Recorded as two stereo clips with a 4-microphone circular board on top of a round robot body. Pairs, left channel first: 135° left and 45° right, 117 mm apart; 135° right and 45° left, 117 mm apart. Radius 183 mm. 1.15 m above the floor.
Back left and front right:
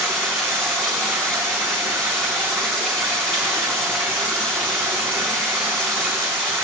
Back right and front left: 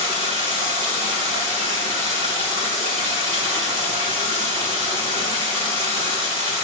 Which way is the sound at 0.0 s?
55° left.